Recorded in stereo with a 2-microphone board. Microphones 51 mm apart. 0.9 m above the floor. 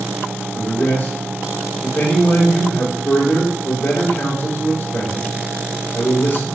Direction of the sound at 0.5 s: 60° left (ahead or behind).